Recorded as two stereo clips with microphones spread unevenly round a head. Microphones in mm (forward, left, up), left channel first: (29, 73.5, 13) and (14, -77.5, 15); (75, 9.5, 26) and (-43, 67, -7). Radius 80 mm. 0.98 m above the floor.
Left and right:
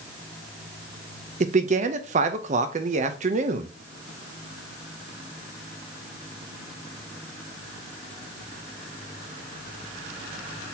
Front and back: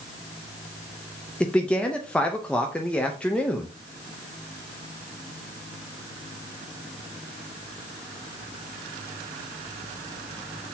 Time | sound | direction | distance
1.4 | a man speaking | 120° right | 0.7 m